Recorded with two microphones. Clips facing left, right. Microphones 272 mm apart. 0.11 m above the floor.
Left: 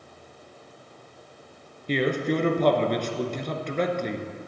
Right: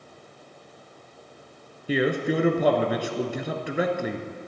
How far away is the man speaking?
About 1.1 m.